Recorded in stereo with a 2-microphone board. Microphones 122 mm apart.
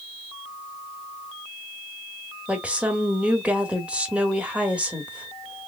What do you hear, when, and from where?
2.5 s a woman speaking: 10° right (ahead or behind), 1.0 m